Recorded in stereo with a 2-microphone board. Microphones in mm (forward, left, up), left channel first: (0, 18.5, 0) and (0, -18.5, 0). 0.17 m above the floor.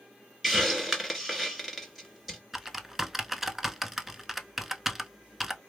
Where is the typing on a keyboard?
5° right (ahead or behind), 0.5 m.